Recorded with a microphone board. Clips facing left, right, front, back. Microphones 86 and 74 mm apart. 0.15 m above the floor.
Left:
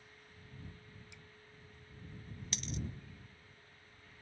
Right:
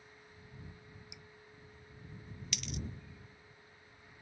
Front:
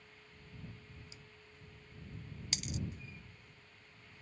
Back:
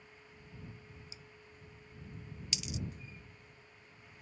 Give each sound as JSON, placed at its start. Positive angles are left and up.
{"t": 1.1, "sound": "dripping", "azimuth_deg": -15}
{"t": 2.5, "sound": "a dropped coin", "azimuth_deg": 35}